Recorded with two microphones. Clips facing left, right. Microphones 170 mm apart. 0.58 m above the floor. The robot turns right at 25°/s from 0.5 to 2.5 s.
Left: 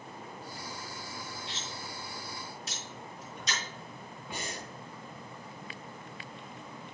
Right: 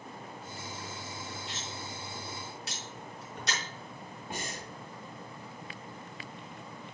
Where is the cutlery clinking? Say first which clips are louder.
Right 1 dB; 45° right (ahead or behind), 2.5 m; by 3.6 s 70° right (ahead or behind), 2.5 m.